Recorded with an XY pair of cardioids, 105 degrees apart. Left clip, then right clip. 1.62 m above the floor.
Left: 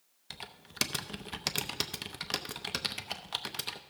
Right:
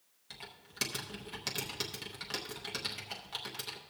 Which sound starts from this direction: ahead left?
Typing on a keyboard, at 0.3 s.